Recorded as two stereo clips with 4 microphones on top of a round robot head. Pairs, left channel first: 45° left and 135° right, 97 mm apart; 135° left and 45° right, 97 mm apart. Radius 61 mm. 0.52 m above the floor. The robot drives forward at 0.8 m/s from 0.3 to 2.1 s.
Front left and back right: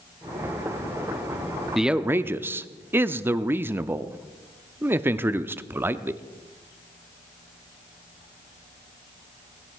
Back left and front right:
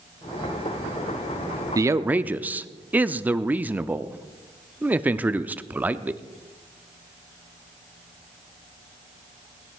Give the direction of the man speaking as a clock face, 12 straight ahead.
2 o'clock.